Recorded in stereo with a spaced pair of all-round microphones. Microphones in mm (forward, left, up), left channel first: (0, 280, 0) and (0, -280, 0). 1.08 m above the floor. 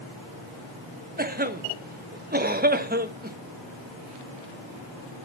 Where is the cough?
15° right (ahead or behind), 0.9 m.